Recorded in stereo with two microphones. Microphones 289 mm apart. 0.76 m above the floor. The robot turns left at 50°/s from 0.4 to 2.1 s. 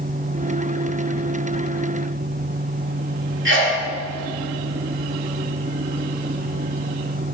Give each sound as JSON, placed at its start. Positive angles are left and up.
{"t": 3.5, "sound": "a sneeze", "side_deg": -40, "distance_m": 2.0}